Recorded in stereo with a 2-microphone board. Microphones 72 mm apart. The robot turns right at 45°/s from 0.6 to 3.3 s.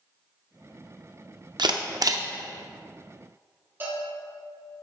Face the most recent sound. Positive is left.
turn(degrees=-30)  # may be behind; listen again after turning